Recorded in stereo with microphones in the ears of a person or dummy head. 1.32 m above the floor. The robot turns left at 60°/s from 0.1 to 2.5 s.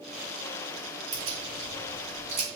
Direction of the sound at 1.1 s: 40° right (ahead or behind).